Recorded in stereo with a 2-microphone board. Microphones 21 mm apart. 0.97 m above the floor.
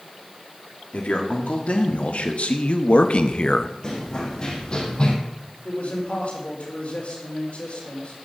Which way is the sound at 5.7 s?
70° left (ahead or behind).